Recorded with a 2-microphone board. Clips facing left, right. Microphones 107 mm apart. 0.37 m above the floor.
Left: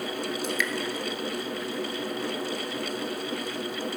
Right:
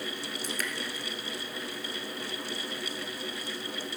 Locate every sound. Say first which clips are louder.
0.4 s dripping: left 5 dB; 40° right (ahead or behind), 1.1 m